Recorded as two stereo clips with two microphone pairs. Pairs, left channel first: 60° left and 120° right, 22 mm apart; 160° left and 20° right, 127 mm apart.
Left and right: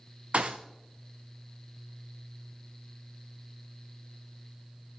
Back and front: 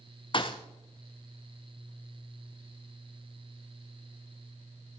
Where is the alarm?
I don't hear an alarm.